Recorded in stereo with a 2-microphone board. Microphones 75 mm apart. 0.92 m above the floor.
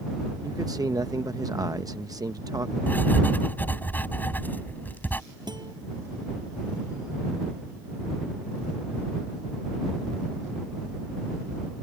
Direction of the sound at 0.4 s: 55° right (ahead or behind).